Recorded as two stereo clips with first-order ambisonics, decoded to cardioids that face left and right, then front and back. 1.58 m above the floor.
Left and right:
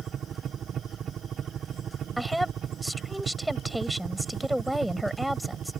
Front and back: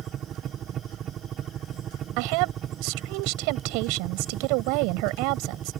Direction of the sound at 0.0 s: 140° right.